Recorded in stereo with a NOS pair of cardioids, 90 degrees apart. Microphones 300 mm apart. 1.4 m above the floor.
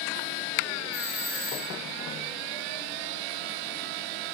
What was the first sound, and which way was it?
A doorbell, 45° left.